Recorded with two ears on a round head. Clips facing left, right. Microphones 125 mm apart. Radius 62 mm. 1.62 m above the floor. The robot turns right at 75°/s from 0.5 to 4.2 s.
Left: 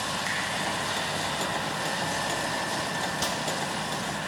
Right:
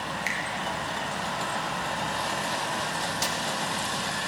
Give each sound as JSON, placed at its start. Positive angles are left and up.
{"t": 0.3, "sound": "a finger snap", "side_deg": -10, "distance_m": 1.0}
{"t": 3.2, "sound": "a snare drum", "side_deg": -10, "distance_m": 0.7}